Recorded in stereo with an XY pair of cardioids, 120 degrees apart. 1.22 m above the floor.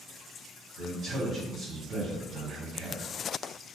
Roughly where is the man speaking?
Ahead right.